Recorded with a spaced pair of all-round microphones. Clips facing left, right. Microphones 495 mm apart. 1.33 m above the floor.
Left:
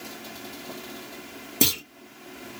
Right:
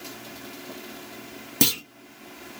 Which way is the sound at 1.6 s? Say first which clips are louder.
Right 1 dB; 20° right (ahead or behind).